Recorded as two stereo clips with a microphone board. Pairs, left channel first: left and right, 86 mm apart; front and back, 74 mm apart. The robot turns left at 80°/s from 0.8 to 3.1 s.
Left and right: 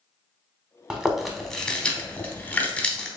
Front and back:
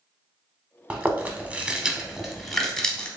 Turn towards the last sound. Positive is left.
turn(degrees=35)